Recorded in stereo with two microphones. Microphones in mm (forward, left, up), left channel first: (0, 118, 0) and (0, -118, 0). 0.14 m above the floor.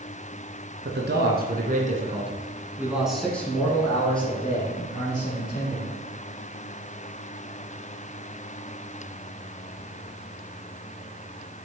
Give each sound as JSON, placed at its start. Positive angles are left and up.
{"t": 0.8, "sound": "a man speaking", "side_deg": -50, "distance_m": 1.7}